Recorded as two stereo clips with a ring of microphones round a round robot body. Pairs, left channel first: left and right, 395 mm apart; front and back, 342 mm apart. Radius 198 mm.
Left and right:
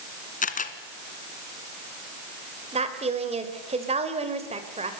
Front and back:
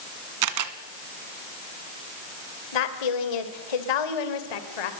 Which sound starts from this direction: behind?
A camera shutter, at 0.4 s.